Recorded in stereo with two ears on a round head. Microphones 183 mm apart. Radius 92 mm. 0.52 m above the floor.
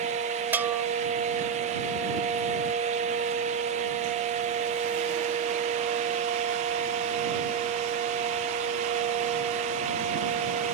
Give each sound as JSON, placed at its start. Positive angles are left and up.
{"t": 0.5, "sound": "a bell", "side_deg": -10}